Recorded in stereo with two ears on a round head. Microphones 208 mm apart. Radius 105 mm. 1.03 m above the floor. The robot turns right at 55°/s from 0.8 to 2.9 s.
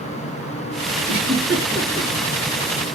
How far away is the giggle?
About 2.5 m.